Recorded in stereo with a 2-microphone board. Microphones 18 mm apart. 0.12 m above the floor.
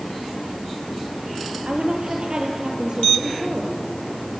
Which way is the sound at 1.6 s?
55° right (ahead or behind).